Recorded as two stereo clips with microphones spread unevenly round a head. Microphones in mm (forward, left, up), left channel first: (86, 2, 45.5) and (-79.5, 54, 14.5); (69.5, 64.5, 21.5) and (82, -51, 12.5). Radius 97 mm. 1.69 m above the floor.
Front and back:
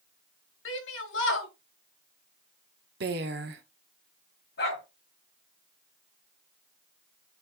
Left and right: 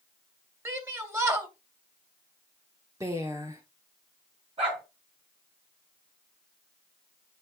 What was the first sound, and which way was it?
A shout, 15° right.